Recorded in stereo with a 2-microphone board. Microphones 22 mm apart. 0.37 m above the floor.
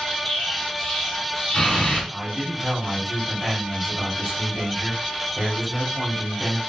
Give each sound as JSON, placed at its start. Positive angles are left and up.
{"t": 0.2, "sound": "an explosion", "side_deg": 40, "distance_m": 1.9}
{"t": 2.1, "sound": "a man speaking", "side_deg": -10, "distance_m": 2.0}